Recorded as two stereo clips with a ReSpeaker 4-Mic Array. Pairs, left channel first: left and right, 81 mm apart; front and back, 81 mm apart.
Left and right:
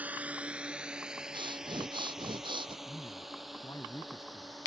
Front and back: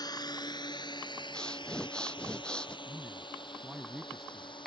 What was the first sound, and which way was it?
A drone, 20° right.